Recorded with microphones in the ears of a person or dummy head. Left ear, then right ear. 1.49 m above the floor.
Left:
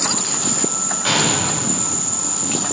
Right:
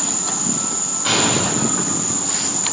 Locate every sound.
0.0 s an insect: 40° left (ahead or behind), 3 m
1.1 s a gunshot: 40° left (ahead or behind), 3 m